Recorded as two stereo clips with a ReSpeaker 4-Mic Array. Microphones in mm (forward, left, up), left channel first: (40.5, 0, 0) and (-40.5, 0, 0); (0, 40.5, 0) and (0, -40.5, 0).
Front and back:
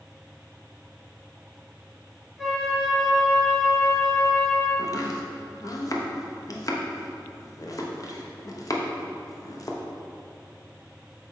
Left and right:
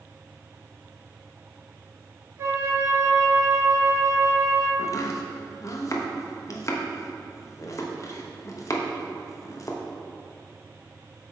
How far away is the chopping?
About 0.7 m.